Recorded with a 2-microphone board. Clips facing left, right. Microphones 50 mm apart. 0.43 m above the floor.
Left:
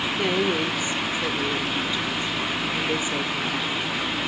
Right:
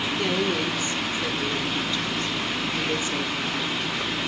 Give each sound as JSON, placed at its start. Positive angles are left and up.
{"t": 0.2, "sound": "a woman speaking", "side_deg": 15, "distance_m": 0.8}